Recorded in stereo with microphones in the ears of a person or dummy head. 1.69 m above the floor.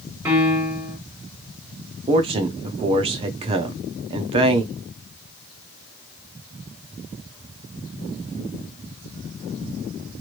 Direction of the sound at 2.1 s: 25° right (ahead or behind).